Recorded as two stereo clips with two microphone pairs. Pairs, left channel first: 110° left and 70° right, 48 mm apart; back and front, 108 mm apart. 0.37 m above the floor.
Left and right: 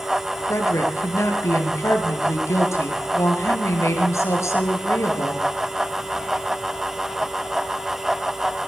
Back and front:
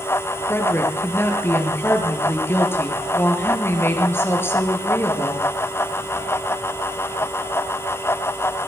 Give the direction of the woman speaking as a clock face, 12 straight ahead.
8 o'clock.